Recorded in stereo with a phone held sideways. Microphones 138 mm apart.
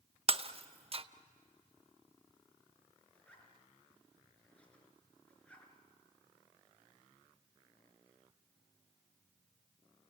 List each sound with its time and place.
0.3 s breaking glass: 45° right (ahead or behind), 0.7 m
3.1 s a zipper: 10° left (ahead or behind), 4 m